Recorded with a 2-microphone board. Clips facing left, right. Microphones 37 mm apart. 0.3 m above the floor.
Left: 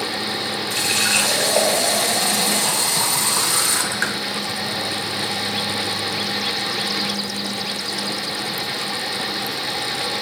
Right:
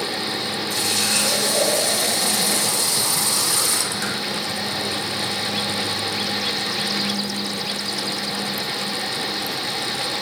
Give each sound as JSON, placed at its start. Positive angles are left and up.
{"t": 0.7, "sound": "a running tap", "side_deg": 50, "distance_m": 1.3}